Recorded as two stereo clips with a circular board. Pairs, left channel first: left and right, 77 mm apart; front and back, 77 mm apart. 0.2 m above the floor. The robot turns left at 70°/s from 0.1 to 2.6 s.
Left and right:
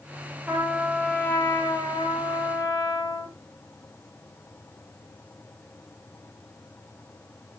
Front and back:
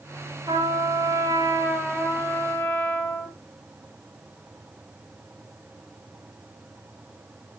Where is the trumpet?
160° right, 4.5 m; by 3.3 s 50° left, 4.5 m.